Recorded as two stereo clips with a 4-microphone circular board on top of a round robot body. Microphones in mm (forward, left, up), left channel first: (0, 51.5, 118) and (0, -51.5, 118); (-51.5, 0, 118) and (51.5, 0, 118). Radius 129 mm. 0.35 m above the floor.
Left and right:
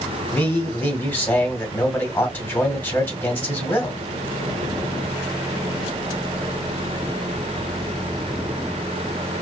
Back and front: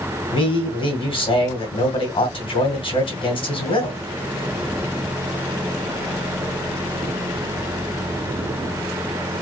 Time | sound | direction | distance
0.3 | a man speaking | 160° left | 2 m